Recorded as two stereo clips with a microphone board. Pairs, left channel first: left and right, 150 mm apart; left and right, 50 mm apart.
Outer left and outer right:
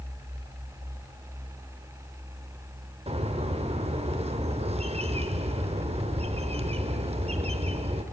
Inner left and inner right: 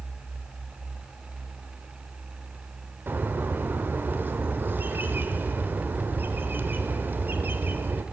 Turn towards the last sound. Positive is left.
turn(degrees=-40)  # may be behind; listen again after turning